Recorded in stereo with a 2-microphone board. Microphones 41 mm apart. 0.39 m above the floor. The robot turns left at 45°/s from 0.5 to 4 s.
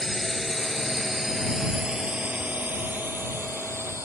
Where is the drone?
5° right (ahead or behind); by 4.1 s 85° right.